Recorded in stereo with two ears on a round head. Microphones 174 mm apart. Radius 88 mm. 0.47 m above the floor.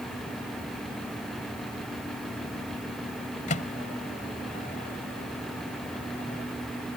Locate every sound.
3.5 s a microwave: 35° left (ahead or behind)